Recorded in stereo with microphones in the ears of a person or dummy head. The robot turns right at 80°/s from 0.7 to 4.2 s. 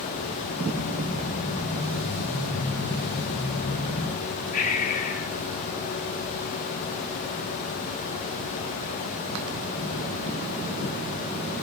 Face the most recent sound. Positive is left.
turn(degrees=40)  # may be behind; listen again after turning